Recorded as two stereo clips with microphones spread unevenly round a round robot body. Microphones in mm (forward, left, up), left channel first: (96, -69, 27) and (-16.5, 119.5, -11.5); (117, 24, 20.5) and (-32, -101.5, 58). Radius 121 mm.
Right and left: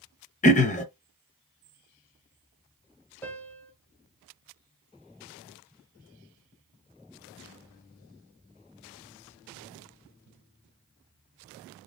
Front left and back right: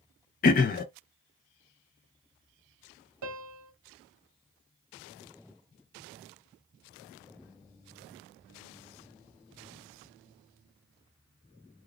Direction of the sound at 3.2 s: 145° right.